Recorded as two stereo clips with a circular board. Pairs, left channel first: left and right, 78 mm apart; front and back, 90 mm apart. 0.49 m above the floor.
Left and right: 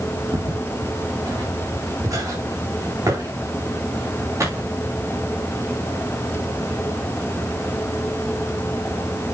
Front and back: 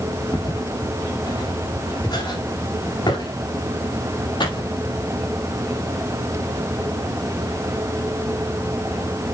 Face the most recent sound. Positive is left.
turn(degrees=-35)